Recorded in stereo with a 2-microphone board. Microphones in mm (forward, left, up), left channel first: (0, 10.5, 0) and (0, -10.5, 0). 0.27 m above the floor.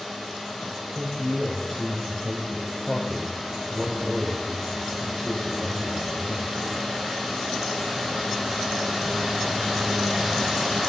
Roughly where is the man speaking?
Left.